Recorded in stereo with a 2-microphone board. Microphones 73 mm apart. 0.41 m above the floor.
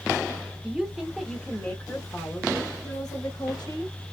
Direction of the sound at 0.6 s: 15° right (ahead or behind).